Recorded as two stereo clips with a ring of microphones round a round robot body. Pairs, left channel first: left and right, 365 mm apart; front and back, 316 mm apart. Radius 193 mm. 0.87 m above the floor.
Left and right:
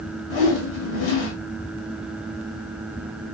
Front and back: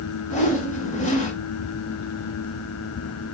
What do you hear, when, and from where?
0.3 s a whoosh: 70° left, 1.4 m